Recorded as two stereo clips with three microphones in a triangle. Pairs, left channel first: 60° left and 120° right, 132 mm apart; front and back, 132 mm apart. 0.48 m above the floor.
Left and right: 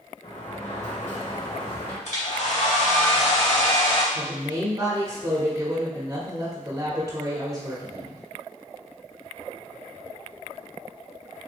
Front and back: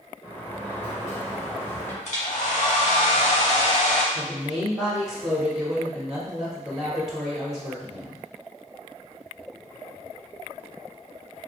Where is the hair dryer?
30° left, 1.0 m.